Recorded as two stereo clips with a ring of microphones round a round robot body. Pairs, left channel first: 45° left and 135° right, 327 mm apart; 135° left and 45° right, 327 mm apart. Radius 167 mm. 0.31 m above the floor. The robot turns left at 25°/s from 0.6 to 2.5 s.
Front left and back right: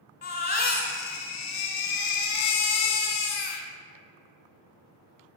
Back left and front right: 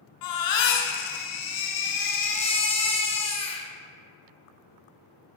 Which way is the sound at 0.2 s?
110° left.